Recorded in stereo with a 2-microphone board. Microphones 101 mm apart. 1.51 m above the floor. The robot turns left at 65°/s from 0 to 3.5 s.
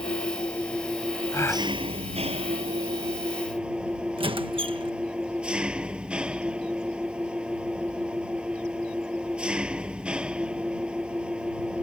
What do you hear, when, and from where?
0.0 s an engine running: 60° left; by 11.8 s 170° right
1.3 s a gasp: 35° left (ahead or behind); by 1.7 s 15° left (ahead or behind)
4.2 s a squeak: 60° right (ahead or behind)